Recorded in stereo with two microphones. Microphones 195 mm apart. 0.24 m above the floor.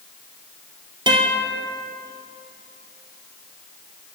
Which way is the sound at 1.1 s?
25° right (ahead or behind).